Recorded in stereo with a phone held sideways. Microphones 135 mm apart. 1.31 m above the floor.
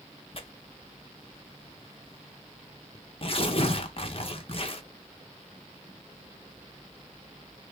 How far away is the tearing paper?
About 0.6 m.